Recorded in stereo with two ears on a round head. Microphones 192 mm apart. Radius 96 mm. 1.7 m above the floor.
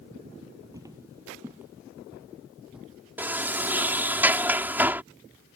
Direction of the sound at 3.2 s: 10° right (ahead or behind).